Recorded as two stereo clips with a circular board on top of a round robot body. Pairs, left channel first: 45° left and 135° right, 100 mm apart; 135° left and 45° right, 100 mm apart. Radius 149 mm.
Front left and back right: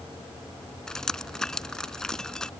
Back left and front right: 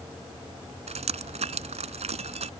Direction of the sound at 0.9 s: 40° right.